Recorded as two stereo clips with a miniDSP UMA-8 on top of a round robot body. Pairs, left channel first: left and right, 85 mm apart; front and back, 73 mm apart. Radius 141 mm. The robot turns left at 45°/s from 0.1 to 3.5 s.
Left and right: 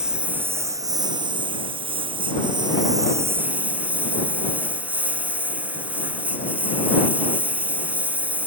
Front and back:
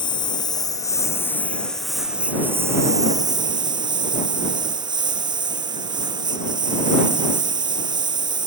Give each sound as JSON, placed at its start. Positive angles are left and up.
{"t": 0.0, "sound": "a lawn mower", "azimuth_deg": -10}